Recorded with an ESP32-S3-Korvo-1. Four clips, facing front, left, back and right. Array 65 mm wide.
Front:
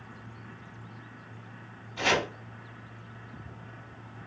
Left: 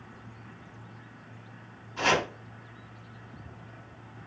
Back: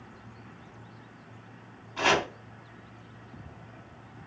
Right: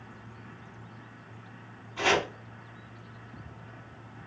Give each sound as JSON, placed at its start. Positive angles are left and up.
{"t": 2.0, "sound": "chopping", "azimuth_deg": 165, "distance_m": 2.5}